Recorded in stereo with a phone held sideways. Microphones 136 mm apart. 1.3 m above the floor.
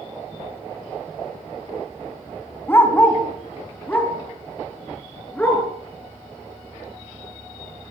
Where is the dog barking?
15° left (ahead or behind), 3.5 m; by 5.6 s 10° left (ahead or behind), 6 m.